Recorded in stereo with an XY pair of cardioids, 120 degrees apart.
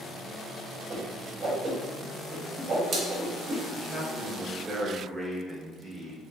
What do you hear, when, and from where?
0.9 s a whoosh: 50° right, 0.9 m
3.7 s a man speaking: 10° right, 0.8 m